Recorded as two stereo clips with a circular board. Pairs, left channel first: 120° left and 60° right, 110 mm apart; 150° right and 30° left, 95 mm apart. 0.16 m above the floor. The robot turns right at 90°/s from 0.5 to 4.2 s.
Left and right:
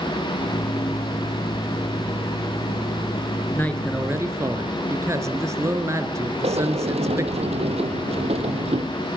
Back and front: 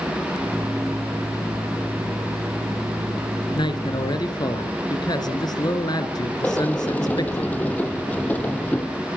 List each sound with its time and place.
3.5 s a man speaking: 175° right, 2.5 m; by 7.4 s 115° right, 2.5 m
6.4 s a sliding door: 75° right, 2 m